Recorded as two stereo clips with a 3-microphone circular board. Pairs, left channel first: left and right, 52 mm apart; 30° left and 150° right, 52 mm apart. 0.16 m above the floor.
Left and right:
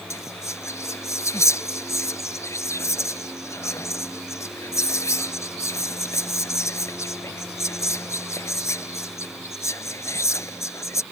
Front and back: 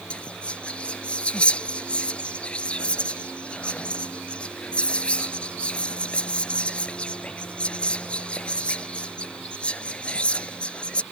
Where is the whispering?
95° left.